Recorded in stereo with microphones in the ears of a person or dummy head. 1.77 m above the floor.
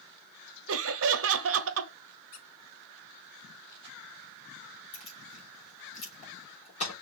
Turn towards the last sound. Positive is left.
turn(degrees=45)  # may be behind; listen again after turning